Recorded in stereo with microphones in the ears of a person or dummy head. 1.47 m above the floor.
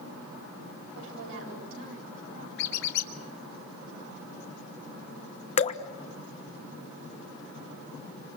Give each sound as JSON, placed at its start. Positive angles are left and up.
{"t": 0.9, "sound": "a woman speaking", "side_deg": -80, "distance_m": 7.5}
{"t": 2.6, "sound": "a squeak", "side_deg": 65, "distance_m": 1.7}
{"t": 5.6, "sound": "dripping", "side_deg": 40, "distance_m": 1.1}